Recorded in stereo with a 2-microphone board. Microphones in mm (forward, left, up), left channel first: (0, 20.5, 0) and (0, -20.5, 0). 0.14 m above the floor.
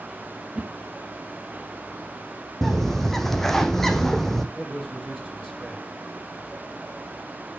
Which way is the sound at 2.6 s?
5° left (ahead or behind).